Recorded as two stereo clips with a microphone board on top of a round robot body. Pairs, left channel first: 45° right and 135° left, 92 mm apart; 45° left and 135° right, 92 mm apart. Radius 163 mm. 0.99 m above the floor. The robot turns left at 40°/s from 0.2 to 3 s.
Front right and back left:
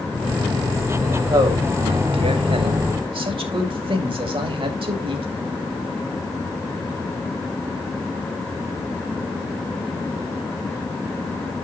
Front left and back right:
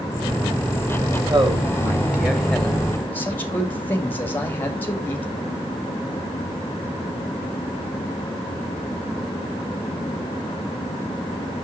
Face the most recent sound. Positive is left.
turn(degrees=115)